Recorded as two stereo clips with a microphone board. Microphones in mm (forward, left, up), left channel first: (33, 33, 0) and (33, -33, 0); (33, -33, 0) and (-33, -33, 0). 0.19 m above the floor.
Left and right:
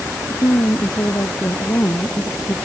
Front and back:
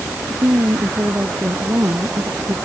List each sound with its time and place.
0.3 s a woman speaking: 130° left; by 2.6 s 135° left